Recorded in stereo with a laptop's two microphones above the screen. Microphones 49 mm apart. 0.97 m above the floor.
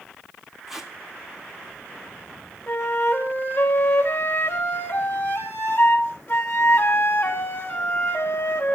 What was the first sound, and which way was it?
Tape being pulled, 5° right (ahead or behind).